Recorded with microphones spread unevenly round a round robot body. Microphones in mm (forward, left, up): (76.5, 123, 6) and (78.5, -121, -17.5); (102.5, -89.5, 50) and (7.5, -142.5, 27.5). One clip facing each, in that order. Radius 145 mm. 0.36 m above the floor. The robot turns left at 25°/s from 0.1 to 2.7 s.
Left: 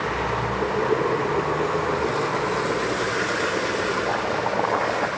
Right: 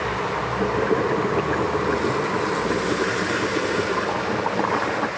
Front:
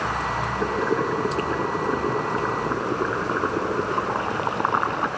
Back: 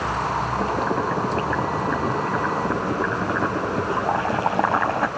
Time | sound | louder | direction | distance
0.6 | boiling | right 1 dB, front 2 dB | 105° right | 6 m